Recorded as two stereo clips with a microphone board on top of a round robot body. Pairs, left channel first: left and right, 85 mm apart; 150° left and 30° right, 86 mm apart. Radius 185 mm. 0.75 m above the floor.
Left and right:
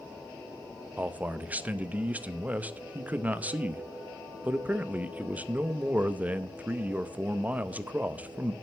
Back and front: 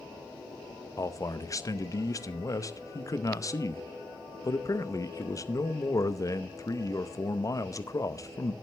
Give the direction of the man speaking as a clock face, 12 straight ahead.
5 o'clock.